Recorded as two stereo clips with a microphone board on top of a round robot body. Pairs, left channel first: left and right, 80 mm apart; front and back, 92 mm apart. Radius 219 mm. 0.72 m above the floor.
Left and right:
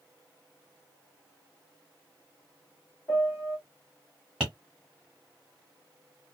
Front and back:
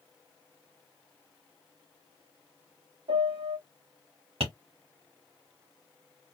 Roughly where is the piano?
Behind left.